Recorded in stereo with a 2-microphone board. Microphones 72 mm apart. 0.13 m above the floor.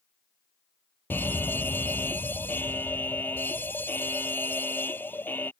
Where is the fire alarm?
25° left (ahead or behind).